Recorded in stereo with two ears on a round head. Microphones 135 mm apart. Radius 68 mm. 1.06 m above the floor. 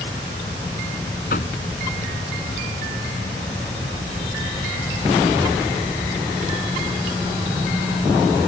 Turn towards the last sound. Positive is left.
turn(degrees=65)  # may be behind; listen again after turning